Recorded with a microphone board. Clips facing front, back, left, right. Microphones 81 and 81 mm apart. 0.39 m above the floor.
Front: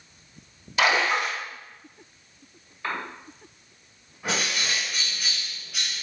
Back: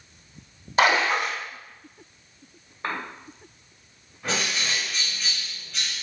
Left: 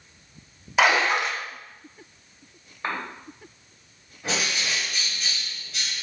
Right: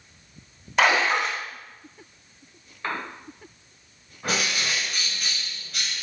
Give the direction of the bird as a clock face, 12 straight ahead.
3 o'clock.